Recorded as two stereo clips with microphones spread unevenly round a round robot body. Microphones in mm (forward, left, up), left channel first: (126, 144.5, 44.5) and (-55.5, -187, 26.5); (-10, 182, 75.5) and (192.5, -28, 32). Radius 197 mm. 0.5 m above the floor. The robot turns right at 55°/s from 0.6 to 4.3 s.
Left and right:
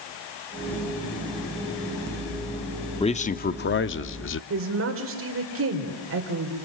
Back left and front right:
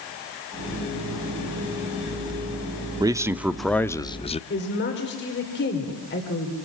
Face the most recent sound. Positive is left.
turn(degrees=-170)